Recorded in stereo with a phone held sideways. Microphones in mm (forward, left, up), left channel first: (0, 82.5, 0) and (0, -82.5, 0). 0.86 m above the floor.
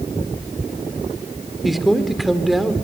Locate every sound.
1.6 s a man speaking: centre (ahead or behind), 2 m